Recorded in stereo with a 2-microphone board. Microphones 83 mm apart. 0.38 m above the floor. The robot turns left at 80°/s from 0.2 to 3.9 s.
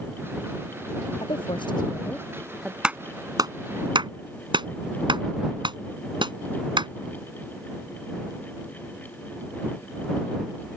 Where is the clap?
10° right (ahead or behind); by 6.9 s 75° right (ahead or behind).